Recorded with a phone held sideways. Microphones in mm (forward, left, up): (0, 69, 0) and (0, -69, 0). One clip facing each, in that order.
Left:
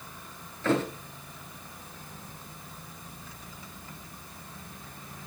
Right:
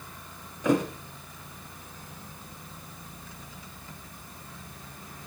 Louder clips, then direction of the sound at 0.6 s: Right 2 dB; 15° right (ahead or behind).